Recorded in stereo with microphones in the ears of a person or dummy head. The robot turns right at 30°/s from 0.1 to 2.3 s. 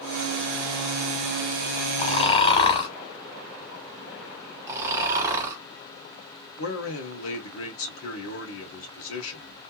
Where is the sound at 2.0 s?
45° left (ahead or behind), 1.0 m; by 2.9 s 35° left (ahead or behind), 1.0 m.